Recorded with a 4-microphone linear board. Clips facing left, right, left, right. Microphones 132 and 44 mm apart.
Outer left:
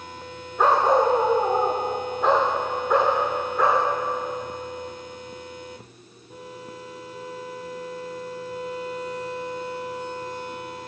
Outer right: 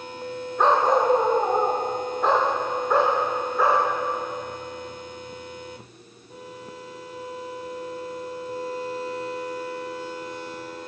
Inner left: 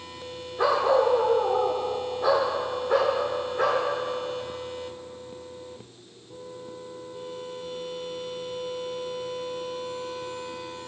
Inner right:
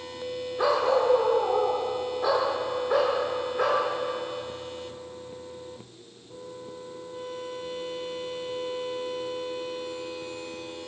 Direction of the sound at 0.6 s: 5° left (ahead or behind).